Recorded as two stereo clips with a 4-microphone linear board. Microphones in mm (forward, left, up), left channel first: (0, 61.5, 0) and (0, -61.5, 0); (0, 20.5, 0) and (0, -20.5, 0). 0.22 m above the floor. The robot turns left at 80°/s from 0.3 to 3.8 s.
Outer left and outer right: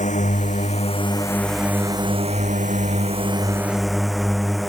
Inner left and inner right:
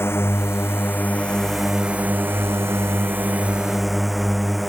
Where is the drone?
100° left; by 4.7 s straight behind.